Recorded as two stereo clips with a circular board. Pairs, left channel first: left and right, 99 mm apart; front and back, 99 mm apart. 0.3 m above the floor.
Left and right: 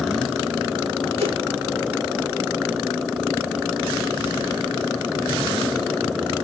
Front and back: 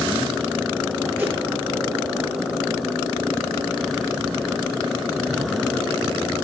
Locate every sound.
1.2 s a whoosh: 105° right, 7 m